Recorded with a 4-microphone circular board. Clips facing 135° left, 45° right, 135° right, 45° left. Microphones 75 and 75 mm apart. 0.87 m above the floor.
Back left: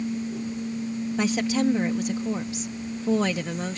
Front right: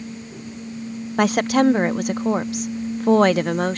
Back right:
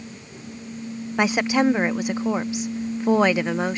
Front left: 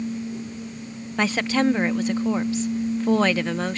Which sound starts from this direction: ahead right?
A woman speaking, at 1.2 s.